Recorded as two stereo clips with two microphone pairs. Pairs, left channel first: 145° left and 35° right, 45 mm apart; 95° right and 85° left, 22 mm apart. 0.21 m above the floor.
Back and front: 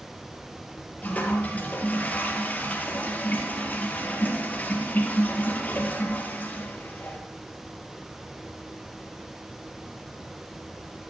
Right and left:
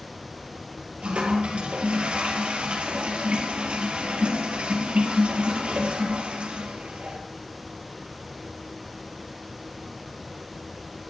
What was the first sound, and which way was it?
A toilet flushing, 100° left.